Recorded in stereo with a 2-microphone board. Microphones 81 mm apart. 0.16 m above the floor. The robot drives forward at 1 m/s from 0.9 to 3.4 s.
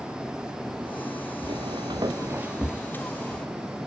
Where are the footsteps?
80° right, 1.4 m; by 3.5 s 10° left (ahead or behind), 2.5 m.